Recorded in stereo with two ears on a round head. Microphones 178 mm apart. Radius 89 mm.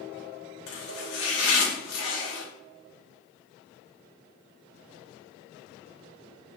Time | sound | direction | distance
0.7 | chopping | 80° left | 3.5 m